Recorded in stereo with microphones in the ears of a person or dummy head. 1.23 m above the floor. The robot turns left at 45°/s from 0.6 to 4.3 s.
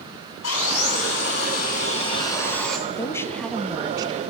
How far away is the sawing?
About 9.5 m.